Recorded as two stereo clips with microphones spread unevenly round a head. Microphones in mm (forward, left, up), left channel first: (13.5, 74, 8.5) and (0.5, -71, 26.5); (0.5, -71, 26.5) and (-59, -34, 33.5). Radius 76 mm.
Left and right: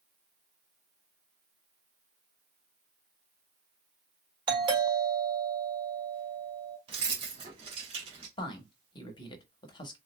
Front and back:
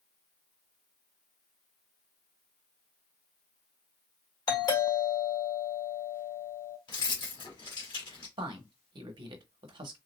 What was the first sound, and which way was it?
A doorbell, 35° right.